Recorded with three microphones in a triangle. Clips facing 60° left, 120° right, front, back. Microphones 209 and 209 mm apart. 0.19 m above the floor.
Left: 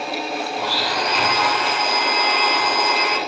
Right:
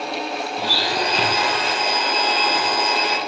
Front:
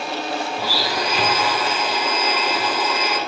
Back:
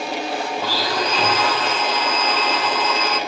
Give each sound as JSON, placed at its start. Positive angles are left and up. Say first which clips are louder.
{"t": 0.6, "sound": "a blender", "louder": "even, back 1 dB", "azimuth_deg": -75, "distance_m": 1.7}